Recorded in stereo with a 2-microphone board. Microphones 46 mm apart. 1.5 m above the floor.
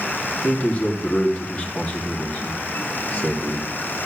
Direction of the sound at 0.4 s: 30° left (ahead or behind).